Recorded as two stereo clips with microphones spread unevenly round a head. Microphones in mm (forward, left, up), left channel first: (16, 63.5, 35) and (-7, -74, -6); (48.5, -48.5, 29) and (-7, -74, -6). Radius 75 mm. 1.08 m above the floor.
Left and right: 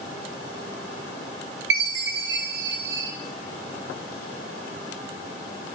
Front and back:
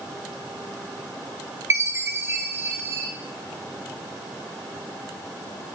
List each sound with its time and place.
1.7 s a chime: 85° right, 0.6 m